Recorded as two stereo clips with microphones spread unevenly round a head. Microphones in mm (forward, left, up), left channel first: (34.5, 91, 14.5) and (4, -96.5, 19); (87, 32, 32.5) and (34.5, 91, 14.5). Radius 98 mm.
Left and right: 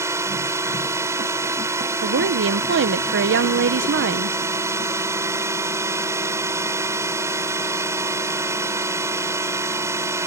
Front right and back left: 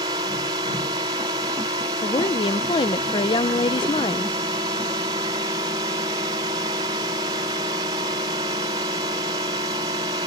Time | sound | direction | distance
0.0 | a drone | 175° right | ?
2.0 | a woman speaking | 85° right | ?